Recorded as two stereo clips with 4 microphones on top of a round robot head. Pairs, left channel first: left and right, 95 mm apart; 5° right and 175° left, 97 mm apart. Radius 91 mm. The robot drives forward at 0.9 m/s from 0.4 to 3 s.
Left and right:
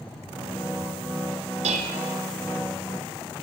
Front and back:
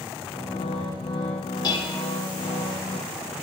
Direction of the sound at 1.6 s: 65° right.